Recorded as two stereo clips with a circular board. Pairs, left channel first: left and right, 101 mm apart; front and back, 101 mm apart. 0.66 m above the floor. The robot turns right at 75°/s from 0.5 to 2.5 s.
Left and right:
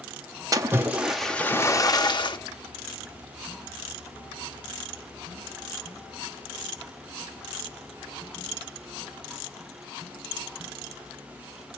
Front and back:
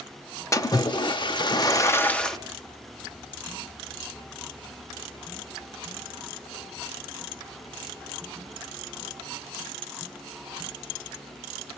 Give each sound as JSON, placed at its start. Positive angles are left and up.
{"t": 0.5, "sound": "a splash", "azimuth_deg": -50, "distance_m": 0.6}